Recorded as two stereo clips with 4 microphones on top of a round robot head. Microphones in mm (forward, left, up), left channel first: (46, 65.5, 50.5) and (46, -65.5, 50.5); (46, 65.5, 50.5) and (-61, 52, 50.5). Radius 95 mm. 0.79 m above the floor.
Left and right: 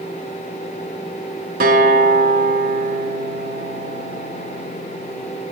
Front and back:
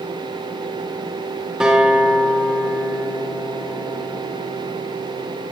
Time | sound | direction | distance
1.6 | a guitar | 90° right | 1.6 m